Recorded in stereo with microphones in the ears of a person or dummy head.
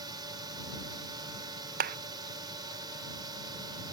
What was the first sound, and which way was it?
A drone, 25° right (ahead or behind).